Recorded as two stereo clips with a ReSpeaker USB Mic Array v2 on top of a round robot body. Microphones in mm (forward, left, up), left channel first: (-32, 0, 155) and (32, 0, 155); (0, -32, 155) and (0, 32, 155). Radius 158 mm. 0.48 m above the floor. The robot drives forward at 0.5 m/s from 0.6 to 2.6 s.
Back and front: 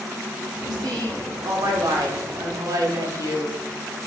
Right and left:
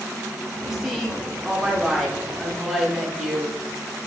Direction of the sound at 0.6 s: 5° left.